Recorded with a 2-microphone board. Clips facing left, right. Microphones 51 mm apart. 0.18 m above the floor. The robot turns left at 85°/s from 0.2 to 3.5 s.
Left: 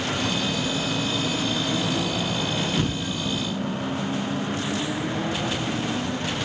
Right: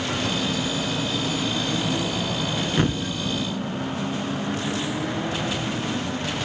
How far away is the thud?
About 0.6 m.